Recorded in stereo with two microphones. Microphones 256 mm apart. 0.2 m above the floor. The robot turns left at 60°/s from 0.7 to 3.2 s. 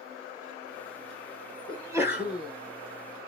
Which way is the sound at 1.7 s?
15° right (ahead or behind).